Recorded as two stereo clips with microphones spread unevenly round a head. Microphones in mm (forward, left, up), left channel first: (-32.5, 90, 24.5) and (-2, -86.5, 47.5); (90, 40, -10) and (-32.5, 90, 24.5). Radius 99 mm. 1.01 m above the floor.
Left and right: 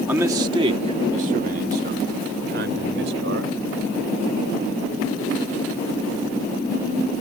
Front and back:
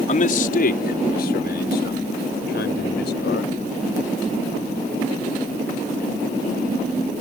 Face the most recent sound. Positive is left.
turn(degrees=-50)